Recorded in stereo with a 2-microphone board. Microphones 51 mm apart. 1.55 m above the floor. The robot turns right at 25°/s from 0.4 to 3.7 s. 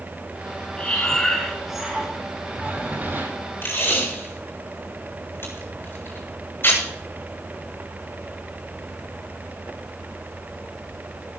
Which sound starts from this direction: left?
Tape being pulled, at 3.6 s.